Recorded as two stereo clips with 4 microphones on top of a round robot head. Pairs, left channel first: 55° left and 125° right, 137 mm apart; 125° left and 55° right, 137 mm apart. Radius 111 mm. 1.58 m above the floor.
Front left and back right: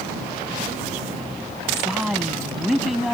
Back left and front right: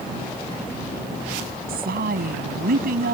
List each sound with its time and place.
1.7 s a woman speaking: 40° right; by 3.1 s 35° right